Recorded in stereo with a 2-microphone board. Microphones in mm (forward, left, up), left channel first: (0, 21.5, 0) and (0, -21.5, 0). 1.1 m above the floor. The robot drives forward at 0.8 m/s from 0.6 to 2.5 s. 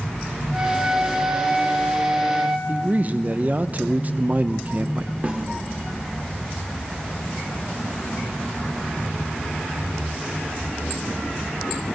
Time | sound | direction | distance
0.5 | a flute | 35° right (ahead or behind) | 2.5 m
2.7 | a man speaking | 35° right (ahead or behind) | 0.5 m
5.2 | a snare drum | 35° right (ahead or behind) | 1.5 m